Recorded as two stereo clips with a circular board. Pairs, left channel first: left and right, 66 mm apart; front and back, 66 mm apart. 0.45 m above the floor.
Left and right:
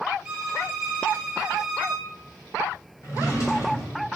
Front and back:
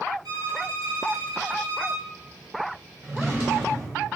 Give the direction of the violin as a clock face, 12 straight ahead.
6 o'clock.